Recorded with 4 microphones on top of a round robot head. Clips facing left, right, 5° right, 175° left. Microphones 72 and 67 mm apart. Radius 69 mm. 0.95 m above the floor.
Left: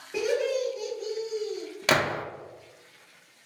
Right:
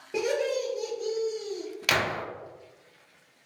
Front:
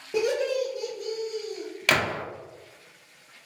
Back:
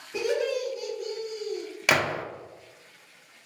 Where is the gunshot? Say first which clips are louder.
Left 3 dB, even; 105° left, 0.6 m.